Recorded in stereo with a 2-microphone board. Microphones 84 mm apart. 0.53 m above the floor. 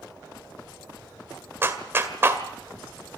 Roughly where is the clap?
Right.